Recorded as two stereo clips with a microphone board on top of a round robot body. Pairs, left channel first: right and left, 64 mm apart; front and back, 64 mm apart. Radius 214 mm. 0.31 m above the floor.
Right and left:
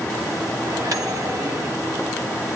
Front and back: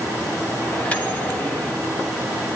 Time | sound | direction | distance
0.6 | a microwave | 65° left | 2 m